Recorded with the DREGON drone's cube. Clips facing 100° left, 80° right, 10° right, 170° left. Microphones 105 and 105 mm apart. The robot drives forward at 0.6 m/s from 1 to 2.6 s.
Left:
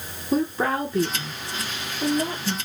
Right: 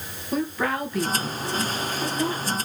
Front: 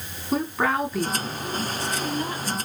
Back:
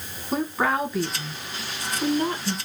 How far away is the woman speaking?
About 1.1 m.